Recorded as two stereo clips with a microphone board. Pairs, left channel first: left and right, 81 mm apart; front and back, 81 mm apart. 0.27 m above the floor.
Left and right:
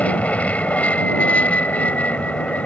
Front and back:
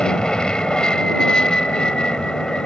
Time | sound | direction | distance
0.0 | an aircraft | 60° left | ?